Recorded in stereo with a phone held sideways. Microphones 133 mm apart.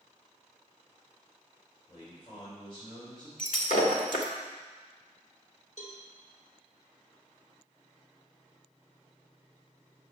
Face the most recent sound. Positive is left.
turn(degrees=60)  # may be behind; listen again after turning